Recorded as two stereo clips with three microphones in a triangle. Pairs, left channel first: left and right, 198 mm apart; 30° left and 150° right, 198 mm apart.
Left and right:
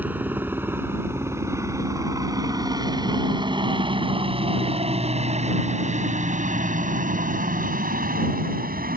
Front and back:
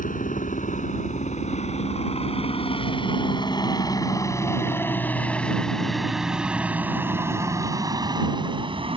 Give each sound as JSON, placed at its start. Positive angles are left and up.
{"t": 0.0, "sound": "a helicopter", "azimuth_deg": -10}